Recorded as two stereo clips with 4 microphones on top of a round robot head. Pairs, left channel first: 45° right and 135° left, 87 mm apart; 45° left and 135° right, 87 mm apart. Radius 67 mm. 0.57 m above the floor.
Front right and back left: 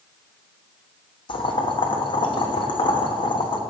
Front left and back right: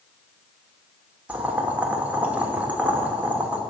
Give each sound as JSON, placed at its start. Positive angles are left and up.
{"t": 1.3, "sound": "boiling", "azimuth_deg": -60, "distance_m": 1.2}